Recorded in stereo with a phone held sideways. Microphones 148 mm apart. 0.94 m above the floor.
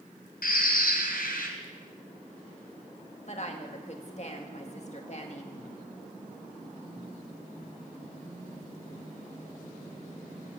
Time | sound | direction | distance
0.4 | a bird | 75° left (ahead or behind) | 3 m
3.3 | a woman speaking | 50° left (ahead or behind) | 1.8 m